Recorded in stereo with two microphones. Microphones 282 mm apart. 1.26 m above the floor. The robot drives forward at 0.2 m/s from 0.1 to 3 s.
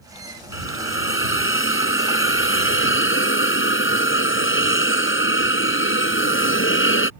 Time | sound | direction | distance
0.5 | a hiss | 45° left (ahead or behind) | ?